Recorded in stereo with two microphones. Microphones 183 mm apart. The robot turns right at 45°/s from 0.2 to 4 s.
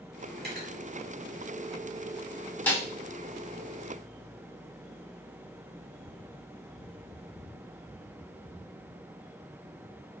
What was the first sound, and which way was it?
Cutlery clinking, 65° right (ahead or behind).